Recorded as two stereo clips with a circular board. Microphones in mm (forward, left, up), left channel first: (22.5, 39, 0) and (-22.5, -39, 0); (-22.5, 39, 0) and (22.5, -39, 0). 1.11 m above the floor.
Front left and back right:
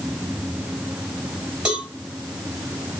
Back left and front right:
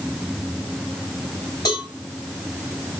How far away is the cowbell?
About 3 m.